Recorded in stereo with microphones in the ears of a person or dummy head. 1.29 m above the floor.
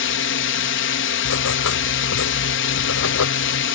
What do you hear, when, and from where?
0.0 s a drone: 55° left (ahead or behind)
1.2 s writing: 80° left